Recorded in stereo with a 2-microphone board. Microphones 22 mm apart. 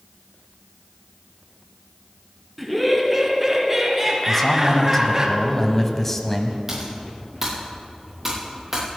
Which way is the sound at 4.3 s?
15° left (ahead or behind).